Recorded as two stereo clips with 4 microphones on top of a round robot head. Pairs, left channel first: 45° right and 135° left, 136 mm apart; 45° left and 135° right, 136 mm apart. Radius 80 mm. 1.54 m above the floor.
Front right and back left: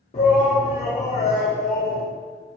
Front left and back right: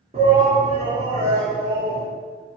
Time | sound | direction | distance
0.1 | a shout | 85° right | 1.6 m